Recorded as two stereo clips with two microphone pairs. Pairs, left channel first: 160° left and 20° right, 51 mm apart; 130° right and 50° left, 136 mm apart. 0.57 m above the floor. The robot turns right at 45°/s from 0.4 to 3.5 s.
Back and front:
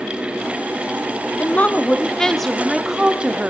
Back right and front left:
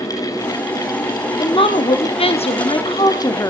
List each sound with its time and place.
1.4 s a woman speaking: 165° right, 0.9 m; by 3.5 s 70° right, 0.9 m